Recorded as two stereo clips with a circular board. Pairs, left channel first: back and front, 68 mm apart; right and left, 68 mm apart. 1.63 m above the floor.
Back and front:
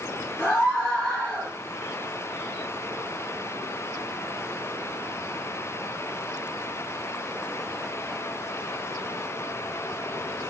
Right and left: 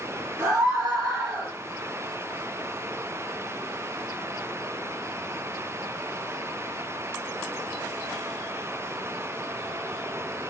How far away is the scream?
About 2 m.